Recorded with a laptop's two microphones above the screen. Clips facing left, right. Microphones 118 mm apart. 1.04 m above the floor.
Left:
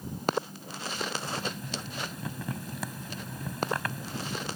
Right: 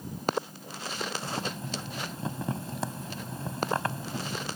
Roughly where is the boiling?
Right.